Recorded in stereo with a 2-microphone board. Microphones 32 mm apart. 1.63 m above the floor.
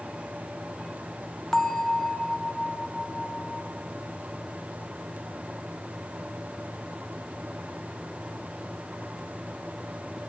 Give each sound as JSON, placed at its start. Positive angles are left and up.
{"t": 1.5, "sound": "a bell", "side_deg": 15, "distance_m": 0.7}